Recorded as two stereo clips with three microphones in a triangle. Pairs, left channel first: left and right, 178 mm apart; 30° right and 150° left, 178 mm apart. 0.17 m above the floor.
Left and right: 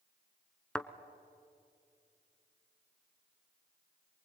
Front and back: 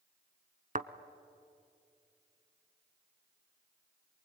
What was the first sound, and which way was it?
A thud, 175° left.